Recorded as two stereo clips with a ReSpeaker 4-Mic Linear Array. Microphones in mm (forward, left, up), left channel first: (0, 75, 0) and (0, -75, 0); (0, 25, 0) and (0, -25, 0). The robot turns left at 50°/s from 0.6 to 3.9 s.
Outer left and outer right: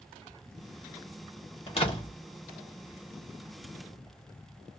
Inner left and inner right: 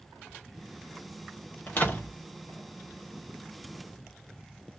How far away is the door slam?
About 1.0 m.